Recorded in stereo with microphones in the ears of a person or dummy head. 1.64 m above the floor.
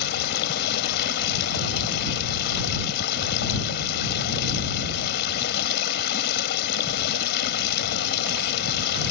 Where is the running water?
60° left (ahead or behind).